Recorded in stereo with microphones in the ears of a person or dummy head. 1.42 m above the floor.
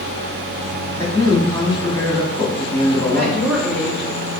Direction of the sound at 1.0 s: 10° left (ahead or behind).